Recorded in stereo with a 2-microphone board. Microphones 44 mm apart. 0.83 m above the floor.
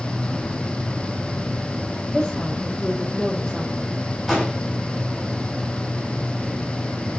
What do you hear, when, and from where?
2.1 s a woman speaking: 10° left (ahead or behind), 3.5 m
4.3 s an explosion: 5° right (ahead or behind), 5.5 m